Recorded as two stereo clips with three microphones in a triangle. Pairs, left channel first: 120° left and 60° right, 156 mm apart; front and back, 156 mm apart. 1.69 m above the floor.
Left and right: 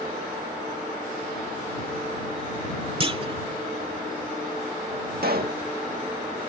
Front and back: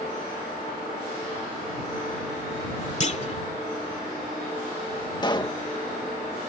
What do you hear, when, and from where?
3.0 s a clunk: 20° right
5.2 s a pop: 60° right